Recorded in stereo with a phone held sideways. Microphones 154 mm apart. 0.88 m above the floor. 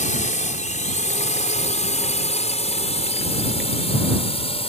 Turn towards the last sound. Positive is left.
turn(degrees=40)  # may be behind; listen again after turning